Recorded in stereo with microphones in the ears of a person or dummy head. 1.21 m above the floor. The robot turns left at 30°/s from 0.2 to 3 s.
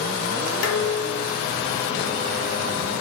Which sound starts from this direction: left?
Dishes clattering, at 0.6 s.